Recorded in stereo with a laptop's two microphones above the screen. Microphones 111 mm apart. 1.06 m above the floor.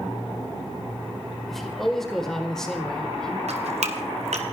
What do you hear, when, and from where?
1.5 s a man speaking: 5° left (ahead or behind), 5 m; by 3.4 s 10° left (ahead or behind), 3.5 m
3.5 s dripping: 80° right, 2 m